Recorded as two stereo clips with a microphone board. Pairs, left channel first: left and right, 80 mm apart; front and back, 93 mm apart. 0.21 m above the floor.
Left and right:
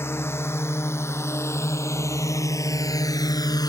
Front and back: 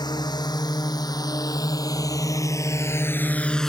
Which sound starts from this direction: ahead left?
A drone, at 0.0 s.